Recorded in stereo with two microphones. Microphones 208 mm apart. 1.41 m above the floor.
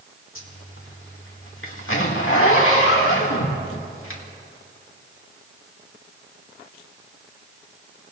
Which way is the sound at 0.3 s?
80° left.